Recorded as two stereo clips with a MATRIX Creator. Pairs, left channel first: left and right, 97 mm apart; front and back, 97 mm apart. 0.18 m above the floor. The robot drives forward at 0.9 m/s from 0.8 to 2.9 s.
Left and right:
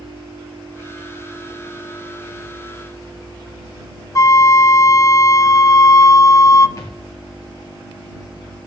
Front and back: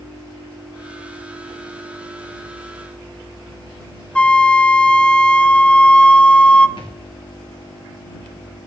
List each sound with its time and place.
4.2 s a flute: 70° left, 0.6 m
6.8 s a thud: 35° left, 2.5 m